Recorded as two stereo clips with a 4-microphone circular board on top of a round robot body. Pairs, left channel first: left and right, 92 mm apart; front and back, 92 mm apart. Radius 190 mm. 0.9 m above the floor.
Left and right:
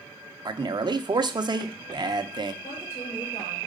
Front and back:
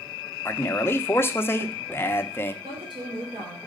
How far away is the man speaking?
About 0.9 m.